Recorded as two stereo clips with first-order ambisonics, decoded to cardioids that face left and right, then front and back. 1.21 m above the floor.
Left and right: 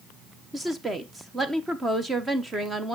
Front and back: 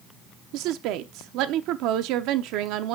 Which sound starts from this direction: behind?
A woman speaking, at 0.5 s.